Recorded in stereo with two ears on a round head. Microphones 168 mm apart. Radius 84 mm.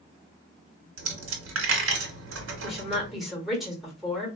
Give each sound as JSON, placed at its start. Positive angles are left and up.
{"t": 1.0, "sound": "a dropped coin", "side_deg": -75, "distance_m": 1.0}
{"t": 2.6, "sound": "a woman speaking", "side_deg": 0, "distance_m": 1.2}